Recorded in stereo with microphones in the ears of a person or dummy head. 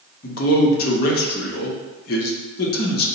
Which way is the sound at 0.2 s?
45° left (ahead or behind).